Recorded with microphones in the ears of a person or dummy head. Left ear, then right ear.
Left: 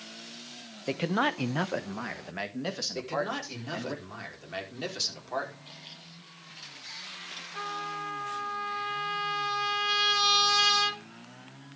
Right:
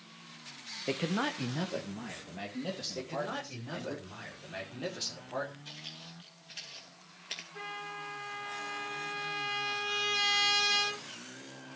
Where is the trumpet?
85° left, 7 m.